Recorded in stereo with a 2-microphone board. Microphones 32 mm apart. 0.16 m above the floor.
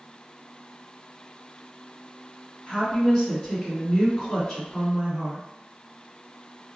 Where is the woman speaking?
25° left (ahead or behind), 1.9 m.